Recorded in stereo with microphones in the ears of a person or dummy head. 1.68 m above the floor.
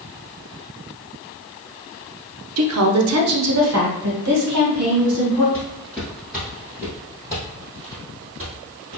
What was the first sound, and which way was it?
A woman speaking, 80° right.